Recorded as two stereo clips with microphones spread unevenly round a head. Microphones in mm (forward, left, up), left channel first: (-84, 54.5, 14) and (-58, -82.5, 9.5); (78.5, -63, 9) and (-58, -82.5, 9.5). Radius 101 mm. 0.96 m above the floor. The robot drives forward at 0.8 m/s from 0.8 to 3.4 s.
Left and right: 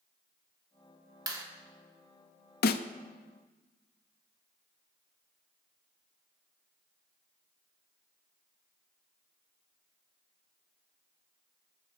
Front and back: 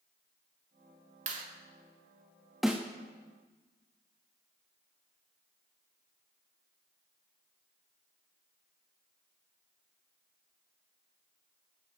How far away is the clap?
About 2 m.